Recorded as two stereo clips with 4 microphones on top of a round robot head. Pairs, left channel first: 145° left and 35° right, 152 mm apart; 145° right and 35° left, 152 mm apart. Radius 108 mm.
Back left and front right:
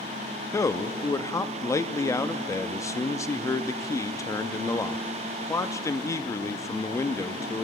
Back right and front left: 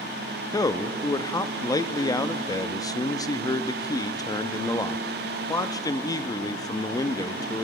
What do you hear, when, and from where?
0.5 s a man speaking: 175° right, 0.6 m